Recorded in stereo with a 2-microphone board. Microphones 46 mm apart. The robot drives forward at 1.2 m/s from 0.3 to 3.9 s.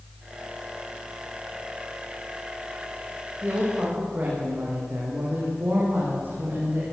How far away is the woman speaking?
About 7.5 m.